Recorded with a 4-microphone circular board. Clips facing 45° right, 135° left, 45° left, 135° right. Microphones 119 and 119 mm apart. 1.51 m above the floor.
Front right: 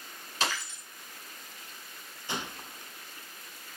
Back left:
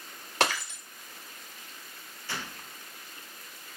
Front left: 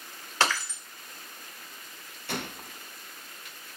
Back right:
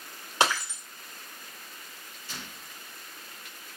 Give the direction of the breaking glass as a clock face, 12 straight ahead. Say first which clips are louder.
Back left 5 dB, back right 1 dB; 7 o'clock.